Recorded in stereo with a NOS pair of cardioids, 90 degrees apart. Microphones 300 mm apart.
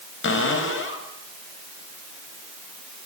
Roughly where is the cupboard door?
Ahead left.